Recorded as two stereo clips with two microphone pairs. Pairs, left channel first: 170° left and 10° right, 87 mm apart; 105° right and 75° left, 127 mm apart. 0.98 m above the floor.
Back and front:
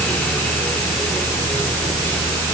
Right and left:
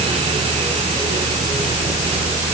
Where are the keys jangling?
No keys jangling in this recording.